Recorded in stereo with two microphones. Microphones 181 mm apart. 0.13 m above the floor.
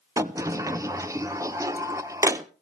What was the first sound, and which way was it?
A sliding door, 15° right (ahead or behind).